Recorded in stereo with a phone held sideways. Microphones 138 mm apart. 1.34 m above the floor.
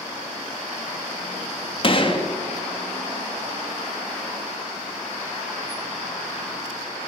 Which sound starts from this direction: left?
A gunshot, at 1.8 s.